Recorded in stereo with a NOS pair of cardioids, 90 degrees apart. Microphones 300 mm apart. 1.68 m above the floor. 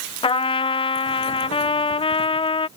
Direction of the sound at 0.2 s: 15° left.